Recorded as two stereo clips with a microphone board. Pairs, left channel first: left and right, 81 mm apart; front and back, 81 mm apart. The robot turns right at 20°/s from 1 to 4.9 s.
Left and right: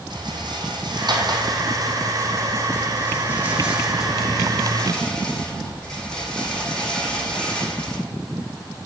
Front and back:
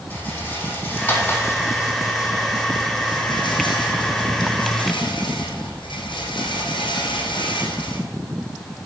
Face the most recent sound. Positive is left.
turn(degrees=10)